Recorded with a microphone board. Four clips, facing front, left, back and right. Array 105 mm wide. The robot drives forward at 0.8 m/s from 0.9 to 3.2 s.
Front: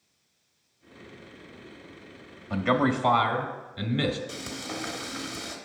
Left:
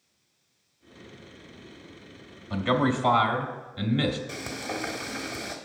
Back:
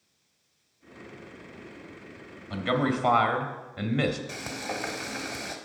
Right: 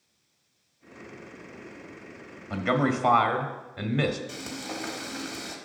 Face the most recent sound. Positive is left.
turn(degrees=150)